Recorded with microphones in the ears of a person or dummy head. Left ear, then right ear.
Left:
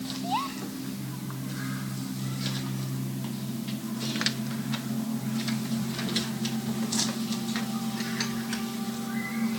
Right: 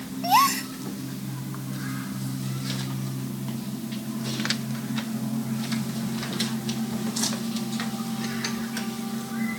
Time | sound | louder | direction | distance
0.2 | a gasp | right 12 dB | 55° right (ahead or behind) | ?